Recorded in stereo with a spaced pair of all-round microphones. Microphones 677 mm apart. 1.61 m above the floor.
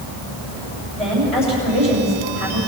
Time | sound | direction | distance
0.9 | a woman speaking | 45° right (ahead or behind) | 8.5 m